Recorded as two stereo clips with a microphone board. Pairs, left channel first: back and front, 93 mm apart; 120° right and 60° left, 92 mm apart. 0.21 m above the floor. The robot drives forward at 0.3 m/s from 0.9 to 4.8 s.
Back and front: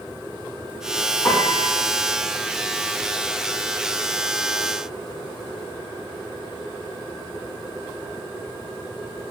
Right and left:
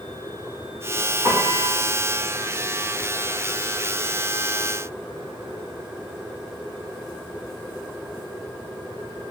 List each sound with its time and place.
1.2 s a piano: 125° left, 4 m